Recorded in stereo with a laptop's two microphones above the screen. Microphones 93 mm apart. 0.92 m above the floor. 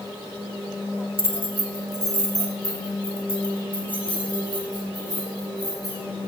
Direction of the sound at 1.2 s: 75° right (ahead or behind).